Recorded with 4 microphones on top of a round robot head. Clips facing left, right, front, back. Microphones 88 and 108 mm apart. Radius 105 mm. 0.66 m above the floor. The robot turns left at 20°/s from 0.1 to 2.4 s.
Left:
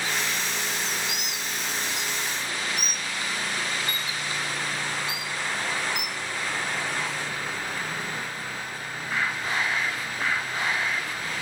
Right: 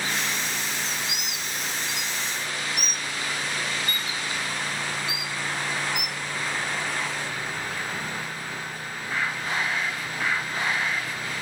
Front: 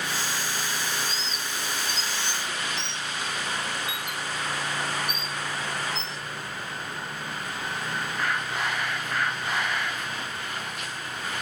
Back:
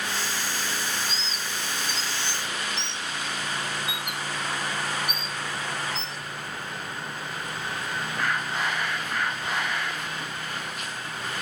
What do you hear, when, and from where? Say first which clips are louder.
1.1 s a bird: left 1 dB, even; 110° right, 1.0 m; by 6.2 s 135° right, 1.0 m